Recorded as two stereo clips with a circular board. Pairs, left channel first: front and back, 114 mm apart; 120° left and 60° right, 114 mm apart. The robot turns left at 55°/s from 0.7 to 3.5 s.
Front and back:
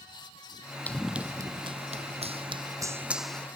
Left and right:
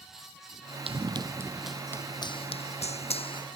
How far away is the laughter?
No laughter in this recording.